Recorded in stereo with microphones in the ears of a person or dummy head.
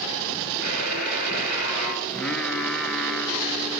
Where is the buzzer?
50° left (ahead or behind), 7 m.